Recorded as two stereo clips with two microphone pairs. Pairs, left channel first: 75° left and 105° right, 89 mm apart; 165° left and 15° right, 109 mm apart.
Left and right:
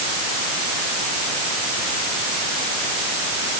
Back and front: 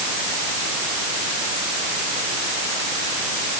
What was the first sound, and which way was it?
Only background noise.